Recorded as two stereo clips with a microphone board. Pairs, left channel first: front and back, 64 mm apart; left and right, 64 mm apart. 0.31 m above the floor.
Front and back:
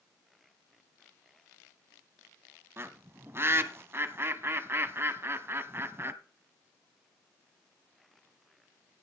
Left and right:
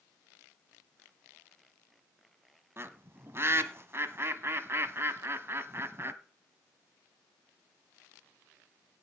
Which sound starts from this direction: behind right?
A bird, at 2.8 s.